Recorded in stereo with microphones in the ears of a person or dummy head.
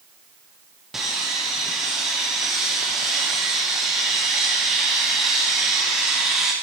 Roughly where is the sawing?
Centre.